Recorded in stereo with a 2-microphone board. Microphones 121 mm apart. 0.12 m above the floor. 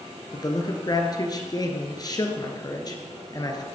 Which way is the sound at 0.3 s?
35° left (ahead or behind).